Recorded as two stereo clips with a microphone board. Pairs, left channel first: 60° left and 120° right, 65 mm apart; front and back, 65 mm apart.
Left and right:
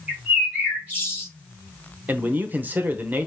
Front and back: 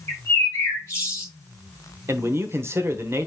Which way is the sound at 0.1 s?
50° right.